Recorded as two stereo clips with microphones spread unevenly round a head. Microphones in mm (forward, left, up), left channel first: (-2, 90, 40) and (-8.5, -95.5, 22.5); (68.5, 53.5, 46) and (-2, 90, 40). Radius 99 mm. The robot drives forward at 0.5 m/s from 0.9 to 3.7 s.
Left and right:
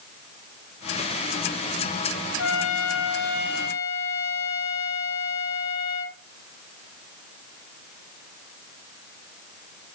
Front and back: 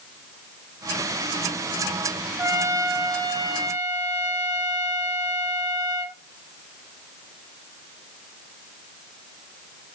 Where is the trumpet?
95° left, 0.9 m; by 6.2 s 130° left, 1.2 m.